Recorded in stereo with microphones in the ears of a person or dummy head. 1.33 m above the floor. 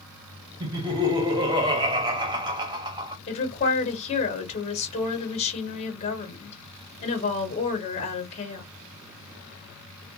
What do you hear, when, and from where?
0.6 s laughter: 25° right (ahead or behind), 0.7 m
3.3 s a woman speaking: 35° left (ahead or behind), 1.2 m